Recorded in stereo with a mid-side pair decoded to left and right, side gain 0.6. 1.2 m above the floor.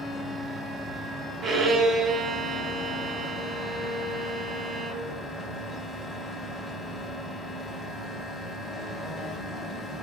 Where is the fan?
10° left, 1.2 m.